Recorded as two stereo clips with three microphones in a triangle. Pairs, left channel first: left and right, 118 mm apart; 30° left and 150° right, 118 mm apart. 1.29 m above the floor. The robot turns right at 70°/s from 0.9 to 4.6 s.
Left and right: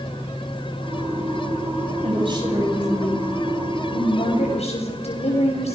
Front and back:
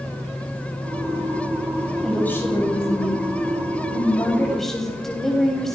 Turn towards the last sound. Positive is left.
turn(degrees=115)